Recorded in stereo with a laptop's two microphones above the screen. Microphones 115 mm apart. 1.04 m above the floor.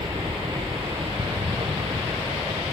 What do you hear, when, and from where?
0.0 s a helicopter: 45° right (ahead or behind); by 2.7 s 55° right (ahead or behind)